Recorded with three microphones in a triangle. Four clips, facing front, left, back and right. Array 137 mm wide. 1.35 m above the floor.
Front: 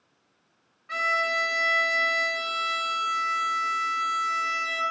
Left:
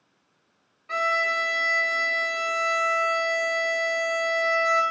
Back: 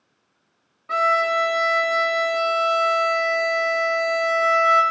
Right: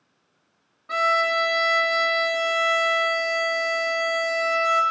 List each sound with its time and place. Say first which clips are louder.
0.9 s a violin: right 4 dB, back 8 dB; 165° right, 1.8 m